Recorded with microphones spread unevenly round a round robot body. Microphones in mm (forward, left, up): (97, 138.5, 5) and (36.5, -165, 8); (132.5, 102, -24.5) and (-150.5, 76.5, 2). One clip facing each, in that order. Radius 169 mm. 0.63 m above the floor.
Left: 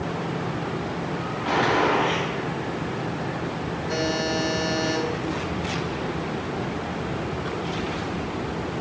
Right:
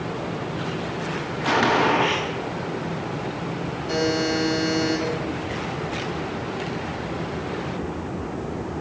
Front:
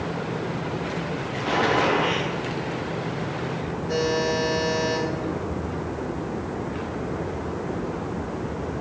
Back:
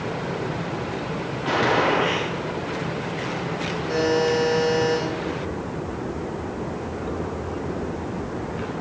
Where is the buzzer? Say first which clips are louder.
Right 4 dB, back 4 dB; 90° right, 3.5 m.